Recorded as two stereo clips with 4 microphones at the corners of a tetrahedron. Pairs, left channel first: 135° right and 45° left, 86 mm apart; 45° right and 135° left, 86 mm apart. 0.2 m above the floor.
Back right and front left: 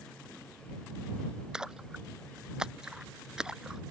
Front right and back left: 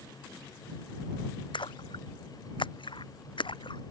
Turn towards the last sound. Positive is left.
turn(degrees=-35)